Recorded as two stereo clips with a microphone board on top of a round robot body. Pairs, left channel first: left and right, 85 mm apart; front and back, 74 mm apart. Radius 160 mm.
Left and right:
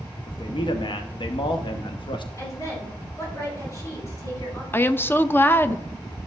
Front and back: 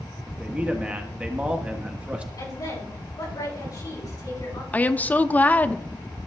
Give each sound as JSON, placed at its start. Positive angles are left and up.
{"t": 0.3, "sound": "a man speaking", "azimuth_deg": 105, "distance_m": 1.1}
{"t": 2.4, "sound": "a woman speaking", "azimuth_deg": 40, "distance_m": 6.0}
{"t": 4.7, "sound": "a woman speaking", "azimuth_deg": 45, "distance_m": 0.7}